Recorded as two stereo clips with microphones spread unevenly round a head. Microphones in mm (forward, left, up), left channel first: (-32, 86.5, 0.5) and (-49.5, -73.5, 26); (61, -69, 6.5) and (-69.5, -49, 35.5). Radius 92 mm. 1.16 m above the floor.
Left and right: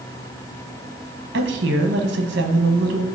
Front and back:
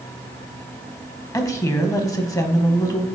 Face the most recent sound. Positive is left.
turn(degrees=-65)